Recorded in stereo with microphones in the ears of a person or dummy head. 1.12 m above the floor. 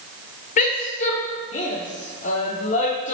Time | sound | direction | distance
0.6 | a woman speaking | 40° left (ahead or behind) | 0.6 m